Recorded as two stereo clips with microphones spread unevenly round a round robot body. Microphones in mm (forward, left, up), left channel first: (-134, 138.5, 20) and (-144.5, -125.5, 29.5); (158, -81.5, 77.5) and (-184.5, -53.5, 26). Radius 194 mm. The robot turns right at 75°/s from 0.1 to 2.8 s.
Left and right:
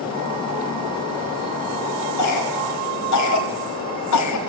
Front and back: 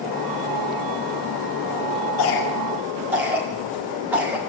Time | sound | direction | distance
2.2 | a cough | 45° left | 6 m